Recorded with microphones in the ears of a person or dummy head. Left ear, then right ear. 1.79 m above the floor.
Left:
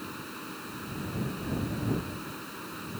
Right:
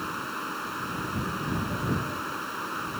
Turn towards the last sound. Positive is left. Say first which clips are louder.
# right 8 dB
turn(degrees=-45)  # may be behind; listen again after turning